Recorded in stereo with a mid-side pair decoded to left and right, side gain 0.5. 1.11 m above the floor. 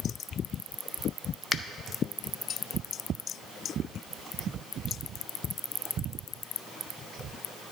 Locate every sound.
1.5 s a finger snap: 35° left, 0.5 m